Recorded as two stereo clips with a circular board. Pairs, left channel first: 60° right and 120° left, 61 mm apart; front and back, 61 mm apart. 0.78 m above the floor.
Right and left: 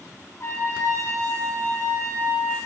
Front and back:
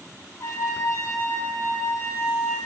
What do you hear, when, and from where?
0.4 s a trumpet: 25° right, 1.8 m